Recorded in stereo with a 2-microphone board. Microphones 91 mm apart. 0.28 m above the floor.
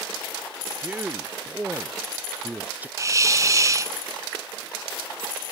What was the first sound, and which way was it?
A man speaking, 15° right (ahead or behind).